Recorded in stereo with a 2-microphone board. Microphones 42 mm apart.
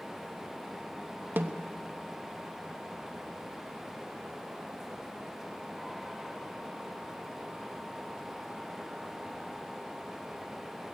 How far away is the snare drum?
About 1.0 m.